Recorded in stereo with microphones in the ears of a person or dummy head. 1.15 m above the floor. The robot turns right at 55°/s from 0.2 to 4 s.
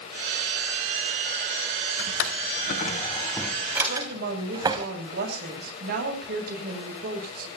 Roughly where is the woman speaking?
Right.